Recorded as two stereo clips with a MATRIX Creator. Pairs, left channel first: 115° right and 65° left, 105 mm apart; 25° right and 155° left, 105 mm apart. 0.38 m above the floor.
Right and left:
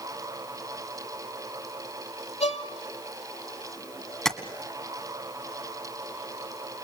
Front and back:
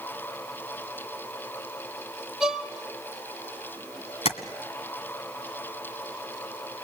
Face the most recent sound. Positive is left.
turn(degrees=-30)